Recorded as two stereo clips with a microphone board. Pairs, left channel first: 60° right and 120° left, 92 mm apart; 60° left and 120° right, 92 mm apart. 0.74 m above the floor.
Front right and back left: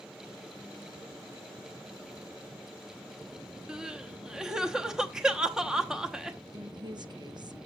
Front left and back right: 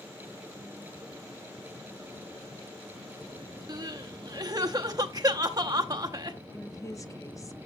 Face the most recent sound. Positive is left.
turn(degrees=105)